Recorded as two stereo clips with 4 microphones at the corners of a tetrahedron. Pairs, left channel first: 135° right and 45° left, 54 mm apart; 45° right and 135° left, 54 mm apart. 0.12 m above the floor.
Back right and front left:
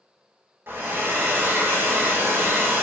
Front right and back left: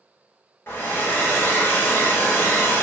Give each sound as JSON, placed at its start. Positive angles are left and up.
{"t": 0.7, "sound": "a hair dryer", "azimuth_deg": 0, "distance_m": 1.1}